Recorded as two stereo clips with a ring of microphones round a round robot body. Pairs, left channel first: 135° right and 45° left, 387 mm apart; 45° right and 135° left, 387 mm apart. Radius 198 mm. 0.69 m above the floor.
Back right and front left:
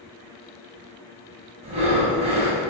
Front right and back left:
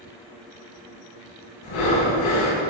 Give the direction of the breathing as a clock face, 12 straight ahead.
1 o'clock.